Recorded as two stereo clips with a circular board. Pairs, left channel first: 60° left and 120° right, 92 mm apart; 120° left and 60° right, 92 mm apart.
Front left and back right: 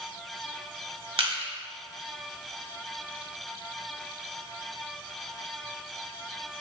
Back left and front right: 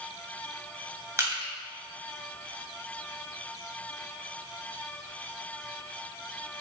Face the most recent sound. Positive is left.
turn(degrees=-115)